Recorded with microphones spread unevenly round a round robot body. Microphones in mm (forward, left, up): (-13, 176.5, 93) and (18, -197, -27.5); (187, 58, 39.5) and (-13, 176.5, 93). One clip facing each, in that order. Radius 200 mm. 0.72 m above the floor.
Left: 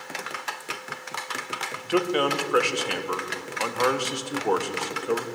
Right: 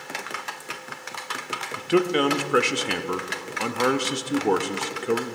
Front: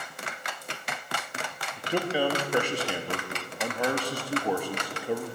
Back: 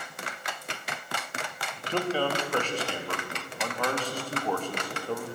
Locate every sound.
1.8 s a man speaking: 90° right, 0.6 m